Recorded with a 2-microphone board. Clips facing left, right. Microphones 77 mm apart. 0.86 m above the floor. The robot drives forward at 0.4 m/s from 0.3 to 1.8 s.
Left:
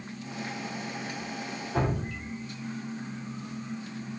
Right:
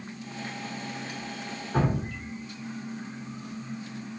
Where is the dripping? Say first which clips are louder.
Right 2 dB; 50° right (ahead or behind), 1.3 m.